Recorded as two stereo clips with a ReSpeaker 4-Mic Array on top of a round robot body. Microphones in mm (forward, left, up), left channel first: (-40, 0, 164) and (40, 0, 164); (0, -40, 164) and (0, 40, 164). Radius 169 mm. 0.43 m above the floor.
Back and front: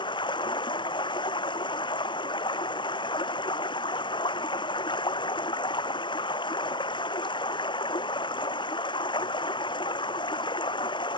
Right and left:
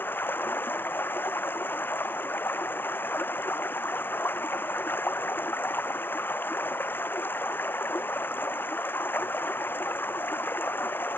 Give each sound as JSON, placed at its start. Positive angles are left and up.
{"t": 0.0, "sound": "running water", "azimuth_deg": -155}